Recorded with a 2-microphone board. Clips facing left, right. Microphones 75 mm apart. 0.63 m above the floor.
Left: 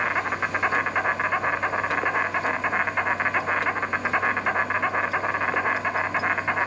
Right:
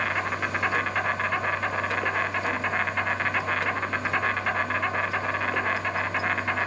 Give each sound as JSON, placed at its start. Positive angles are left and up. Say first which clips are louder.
{"t": 0.0, "sound": "an insect", "louder": "left 2 dB", "side_deg": 15, "distance_m": 1.0}